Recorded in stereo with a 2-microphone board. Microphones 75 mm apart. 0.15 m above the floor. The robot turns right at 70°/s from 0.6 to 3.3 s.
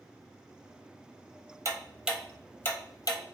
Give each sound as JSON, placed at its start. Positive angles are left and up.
{"t": 1.6, "sound": "ticking", "side_deg": -40, "distance_m": 0.6}